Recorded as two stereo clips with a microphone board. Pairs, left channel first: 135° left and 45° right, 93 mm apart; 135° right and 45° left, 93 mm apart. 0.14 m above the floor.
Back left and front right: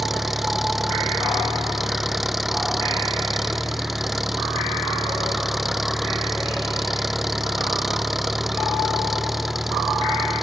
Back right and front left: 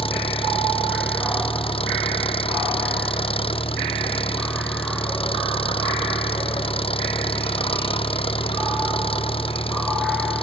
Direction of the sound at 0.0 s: 135° right.